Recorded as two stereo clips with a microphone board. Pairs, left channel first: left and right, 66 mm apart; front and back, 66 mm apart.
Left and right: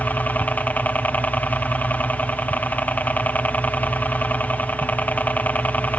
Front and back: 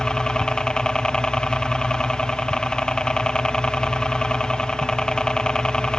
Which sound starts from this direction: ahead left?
A helicopter, at 0.0 s.